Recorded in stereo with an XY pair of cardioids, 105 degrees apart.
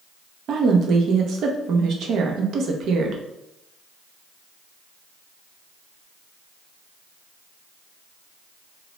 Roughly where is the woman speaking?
Ahead right.